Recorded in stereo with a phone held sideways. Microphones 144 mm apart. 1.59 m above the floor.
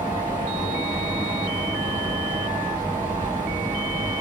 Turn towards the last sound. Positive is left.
turn(degrees=-25)  # may be behind; listen again after turning